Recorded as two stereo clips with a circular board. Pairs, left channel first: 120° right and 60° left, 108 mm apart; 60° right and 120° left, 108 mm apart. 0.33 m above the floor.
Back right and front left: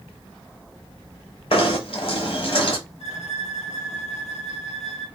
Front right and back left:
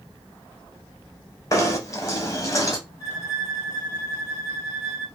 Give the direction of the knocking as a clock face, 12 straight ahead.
4 o'clock.